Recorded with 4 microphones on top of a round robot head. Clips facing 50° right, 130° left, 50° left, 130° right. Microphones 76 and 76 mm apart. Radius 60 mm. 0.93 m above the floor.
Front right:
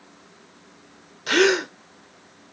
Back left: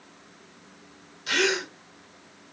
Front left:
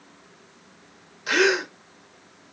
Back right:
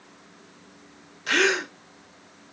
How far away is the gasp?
About 0.8 m.